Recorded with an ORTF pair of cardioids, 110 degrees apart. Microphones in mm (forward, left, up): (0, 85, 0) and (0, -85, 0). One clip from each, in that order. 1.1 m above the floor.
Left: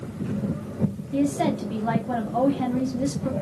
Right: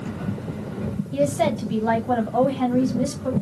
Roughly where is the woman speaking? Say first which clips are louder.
Right 4 dB; ahead right.